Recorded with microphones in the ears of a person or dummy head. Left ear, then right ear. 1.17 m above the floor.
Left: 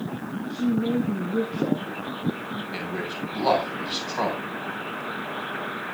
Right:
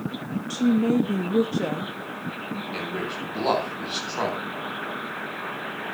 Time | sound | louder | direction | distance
0.5 | a woman speaking | right 3 dB | 50° right (ahead or behind) | 0.7 m
2.7 | a man speaking | right 2 dB | 5° left (ahead or behind) | 8.5 m